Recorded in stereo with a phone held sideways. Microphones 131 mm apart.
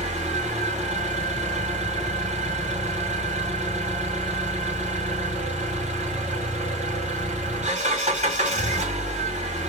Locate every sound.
0.0 s an engine running: 70° right (ahead or behind), 1.8 m